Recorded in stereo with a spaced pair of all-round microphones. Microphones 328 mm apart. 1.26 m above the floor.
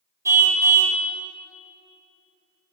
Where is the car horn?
10° right (ahead or behind), 3.5 m.